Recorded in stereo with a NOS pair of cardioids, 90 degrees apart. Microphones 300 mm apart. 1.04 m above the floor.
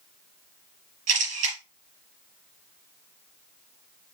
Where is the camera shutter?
60° right, 4.5 m.